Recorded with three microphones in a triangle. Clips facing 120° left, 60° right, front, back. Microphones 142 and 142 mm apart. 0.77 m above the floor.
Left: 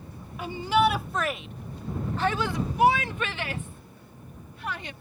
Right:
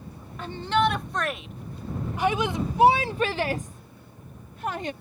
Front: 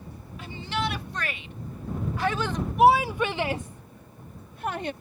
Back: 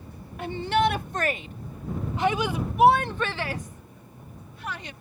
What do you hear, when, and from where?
0.4 s a shout: 160° right; by 4.9 s 20° right